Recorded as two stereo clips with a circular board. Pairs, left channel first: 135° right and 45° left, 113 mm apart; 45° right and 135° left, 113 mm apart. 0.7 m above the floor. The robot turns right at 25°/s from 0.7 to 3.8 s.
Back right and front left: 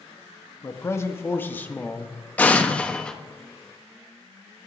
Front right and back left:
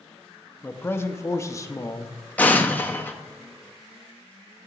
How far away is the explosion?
About 0.8 m.